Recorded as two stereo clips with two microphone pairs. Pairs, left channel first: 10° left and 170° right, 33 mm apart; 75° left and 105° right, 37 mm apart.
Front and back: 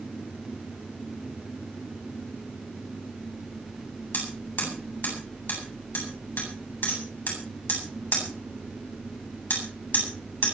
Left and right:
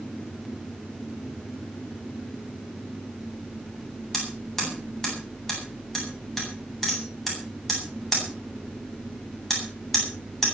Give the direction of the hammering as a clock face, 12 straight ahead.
12 o'clock.